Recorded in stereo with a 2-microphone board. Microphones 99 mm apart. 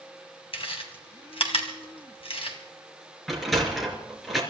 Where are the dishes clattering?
No dishes clattering in this recording.